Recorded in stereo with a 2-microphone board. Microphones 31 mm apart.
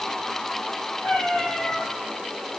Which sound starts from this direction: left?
A cat meowing, at 1.0 s.